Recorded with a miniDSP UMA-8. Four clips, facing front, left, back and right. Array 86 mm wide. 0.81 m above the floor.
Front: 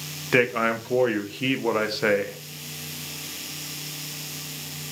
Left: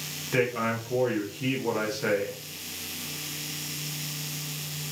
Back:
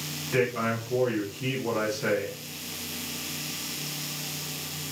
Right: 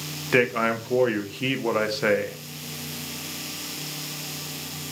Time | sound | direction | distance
0.3 | a man speaking | 40° right | 0.7 m